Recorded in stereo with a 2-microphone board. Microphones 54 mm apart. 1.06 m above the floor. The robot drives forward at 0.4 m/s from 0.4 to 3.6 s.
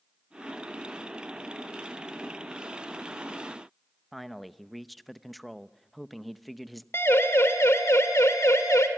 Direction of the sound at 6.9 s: 55° left (ahead or behind).